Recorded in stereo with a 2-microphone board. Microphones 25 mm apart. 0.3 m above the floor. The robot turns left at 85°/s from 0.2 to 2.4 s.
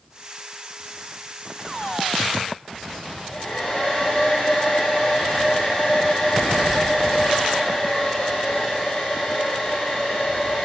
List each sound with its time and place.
3.0 s a hair dryer: 20° left (ahead or behind), 9.5 m